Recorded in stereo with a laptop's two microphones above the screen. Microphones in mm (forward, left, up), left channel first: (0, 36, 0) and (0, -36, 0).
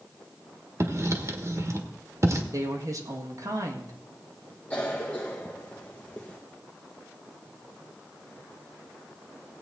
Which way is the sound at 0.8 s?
45° right (ahead or behind).